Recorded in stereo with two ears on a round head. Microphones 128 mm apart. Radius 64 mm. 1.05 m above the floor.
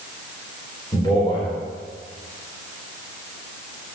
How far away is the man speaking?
About 4 m.